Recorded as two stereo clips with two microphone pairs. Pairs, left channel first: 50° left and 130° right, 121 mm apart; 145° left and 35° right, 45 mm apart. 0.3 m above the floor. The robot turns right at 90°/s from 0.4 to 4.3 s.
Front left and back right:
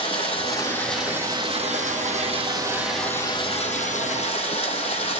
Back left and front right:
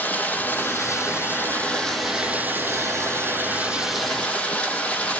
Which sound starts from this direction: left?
Running water, at 0.0 s.